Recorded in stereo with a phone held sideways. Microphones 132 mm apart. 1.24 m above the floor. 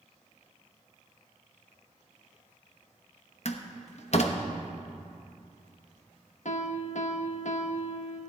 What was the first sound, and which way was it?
A door slam, 55° left (ahead or behind).